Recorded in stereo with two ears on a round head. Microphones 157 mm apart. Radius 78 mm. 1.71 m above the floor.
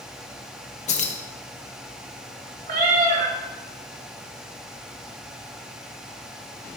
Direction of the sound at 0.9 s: 40° left (ahead or behind).